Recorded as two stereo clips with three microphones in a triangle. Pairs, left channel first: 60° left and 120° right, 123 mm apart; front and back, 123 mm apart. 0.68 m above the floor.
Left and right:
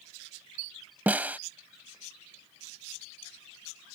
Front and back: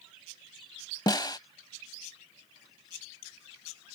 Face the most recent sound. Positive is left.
turn(degrees=-45)